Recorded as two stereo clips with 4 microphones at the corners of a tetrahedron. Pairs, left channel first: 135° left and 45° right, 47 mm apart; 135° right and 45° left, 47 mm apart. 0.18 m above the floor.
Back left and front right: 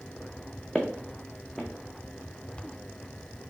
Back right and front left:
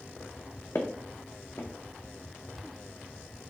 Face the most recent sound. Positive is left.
turn(degrees=-150)